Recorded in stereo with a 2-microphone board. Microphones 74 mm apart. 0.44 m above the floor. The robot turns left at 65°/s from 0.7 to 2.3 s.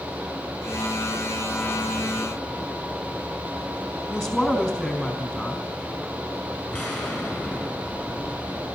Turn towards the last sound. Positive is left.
turn(degrees=5)  # may be behind; listen again after turning